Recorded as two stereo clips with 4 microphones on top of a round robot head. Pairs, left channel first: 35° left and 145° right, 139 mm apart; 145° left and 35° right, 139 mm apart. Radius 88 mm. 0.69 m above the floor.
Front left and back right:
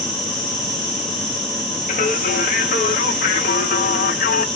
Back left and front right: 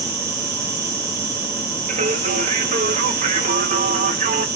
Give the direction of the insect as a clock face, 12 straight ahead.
2 o'clock.